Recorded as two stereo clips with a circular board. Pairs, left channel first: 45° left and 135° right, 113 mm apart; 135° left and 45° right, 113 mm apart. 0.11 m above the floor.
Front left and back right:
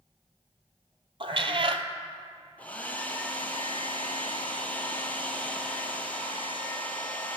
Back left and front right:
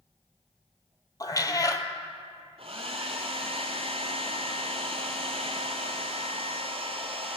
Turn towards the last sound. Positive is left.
turn(degrees=-30)